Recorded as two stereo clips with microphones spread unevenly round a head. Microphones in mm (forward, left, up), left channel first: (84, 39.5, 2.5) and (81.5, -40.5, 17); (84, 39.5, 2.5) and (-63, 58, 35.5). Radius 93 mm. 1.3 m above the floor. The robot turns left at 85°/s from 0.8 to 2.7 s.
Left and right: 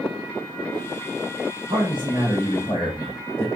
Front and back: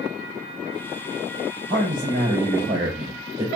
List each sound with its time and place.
1.7 s a man speaking: 130° right, 2.5 m; by 3.5 s 145° left, 2.5 m